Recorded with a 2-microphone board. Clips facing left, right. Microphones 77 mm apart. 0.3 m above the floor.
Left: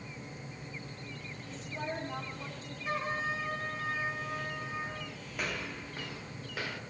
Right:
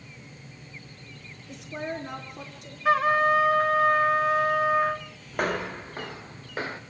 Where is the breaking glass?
I don't hear breaking glass.